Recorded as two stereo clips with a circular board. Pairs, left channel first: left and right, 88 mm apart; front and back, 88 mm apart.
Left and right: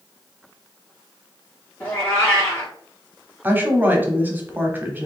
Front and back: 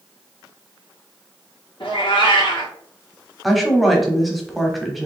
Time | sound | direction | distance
1.8 | a cat meowing | 20° left | 2 m
3.4 | a woman speaking | 90° right | 1.0 m